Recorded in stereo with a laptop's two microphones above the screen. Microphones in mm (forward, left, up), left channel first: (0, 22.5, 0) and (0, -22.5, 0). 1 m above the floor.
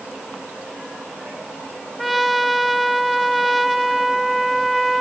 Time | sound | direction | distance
2.0 | a trumpet | centre (ahead or behind) | 0.8 m